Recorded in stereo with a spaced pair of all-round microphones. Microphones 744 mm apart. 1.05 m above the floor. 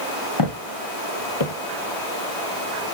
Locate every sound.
0.4 s footsteps: 35° left (ahead or behind), 1.4 m; by 1.5 s 40° left (ahead or behind), 1.5 m